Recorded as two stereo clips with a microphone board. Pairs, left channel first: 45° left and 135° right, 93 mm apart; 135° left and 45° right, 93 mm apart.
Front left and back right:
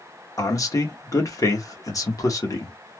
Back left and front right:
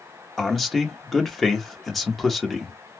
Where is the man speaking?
45° left, 1.0 m.